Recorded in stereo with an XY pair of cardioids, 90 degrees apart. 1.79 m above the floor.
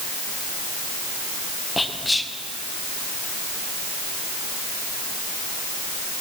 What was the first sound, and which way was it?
Whispering, 15° left.